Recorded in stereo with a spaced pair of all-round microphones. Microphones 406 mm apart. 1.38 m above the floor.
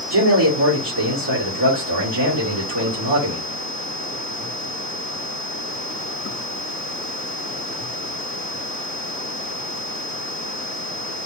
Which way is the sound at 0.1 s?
75° right (ahead or behind).